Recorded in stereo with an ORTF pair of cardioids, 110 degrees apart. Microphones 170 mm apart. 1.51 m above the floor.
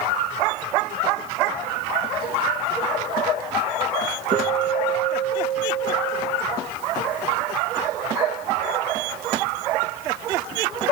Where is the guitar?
40° right, 4 m.